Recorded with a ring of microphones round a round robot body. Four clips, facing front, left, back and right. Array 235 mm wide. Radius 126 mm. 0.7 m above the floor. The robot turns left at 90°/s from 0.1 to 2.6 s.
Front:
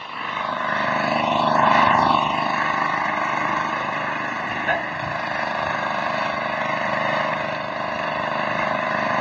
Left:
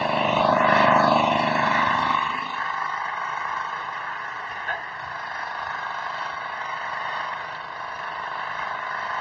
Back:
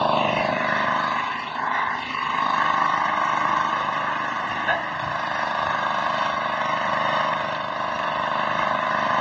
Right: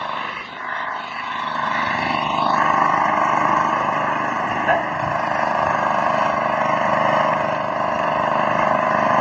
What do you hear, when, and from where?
0.0 s an engine running: 150° left; by 9.2 s 75° right